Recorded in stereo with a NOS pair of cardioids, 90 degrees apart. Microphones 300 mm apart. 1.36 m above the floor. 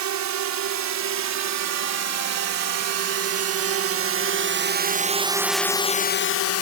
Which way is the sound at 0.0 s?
65° right.